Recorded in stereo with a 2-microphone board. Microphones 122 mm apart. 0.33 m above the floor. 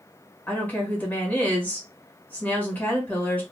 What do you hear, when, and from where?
0.5 s a woman speaking: 15° left (ahead or behind), 1.4 m